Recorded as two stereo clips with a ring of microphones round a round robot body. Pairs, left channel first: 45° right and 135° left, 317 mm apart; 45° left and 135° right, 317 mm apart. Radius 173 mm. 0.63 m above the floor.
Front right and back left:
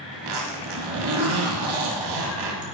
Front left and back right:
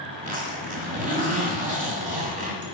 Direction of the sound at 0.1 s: 155° left.